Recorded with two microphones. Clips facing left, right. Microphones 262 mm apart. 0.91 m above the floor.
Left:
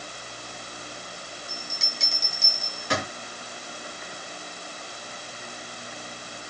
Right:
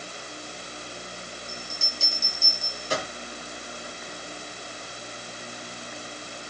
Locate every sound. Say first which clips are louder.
1.5 s a bell: right 1 dB; 80° left, 3.5 m